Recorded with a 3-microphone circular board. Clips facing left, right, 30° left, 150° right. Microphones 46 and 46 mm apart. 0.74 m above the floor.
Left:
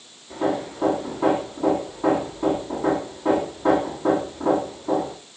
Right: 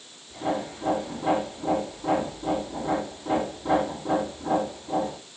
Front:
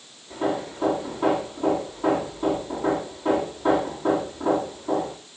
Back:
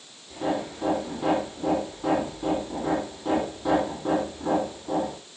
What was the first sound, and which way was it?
Hammering, 95° left.